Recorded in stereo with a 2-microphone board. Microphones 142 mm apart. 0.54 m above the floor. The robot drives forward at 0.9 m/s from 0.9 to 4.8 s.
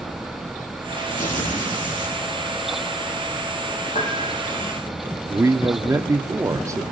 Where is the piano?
65° left (ahead or behind), 4.5 m; by 4.3 s 60° left (ahead or behind), 5 m.